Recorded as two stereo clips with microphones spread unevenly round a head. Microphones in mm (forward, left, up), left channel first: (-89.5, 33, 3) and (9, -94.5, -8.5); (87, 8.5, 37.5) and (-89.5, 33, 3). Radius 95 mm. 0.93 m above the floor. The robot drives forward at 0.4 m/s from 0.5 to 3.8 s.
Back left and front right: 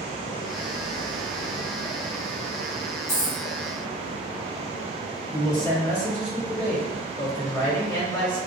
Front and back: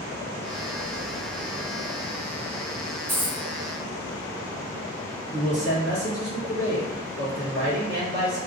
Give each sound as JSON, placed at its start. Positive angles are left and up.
{"t": 3.1, "sound": "a dropped coin", "azimuth_deg": 80, "distance_m": 0.8}
{"t": 5.3, "sound": "a man speaking", "azimuth_deg": -165, "distance_m": 1.7}